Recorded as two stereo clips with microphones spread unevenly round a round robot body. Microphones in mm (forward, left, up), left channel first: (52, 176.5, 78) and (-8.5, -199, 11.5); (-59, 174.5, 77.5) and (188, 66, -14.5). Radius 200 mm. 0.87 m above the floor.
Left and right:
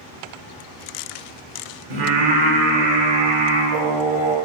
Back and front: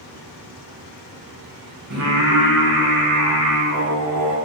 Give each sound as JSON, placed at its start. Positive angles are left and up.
{"t": 1.9, "sound": "singing", "azimuth_deg": -75, "distance_m": 0.9}